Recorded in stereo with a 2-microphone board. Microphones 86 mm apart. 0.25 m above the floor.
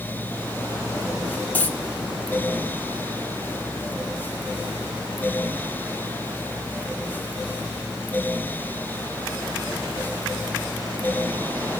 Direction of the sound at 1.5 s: 20° left (ahead or behind).